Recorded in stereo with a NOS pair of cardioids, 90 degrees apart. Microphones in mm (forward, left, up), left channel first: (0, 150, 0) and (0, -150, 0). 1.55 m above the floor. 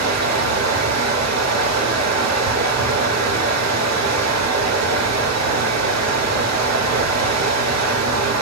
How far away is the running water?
About 2.5 m.